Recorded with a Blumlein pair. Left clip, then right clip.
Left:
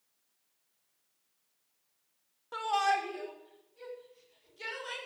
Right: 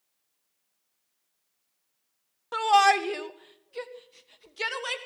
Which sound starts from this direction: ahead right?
A shout, at 2.5 s.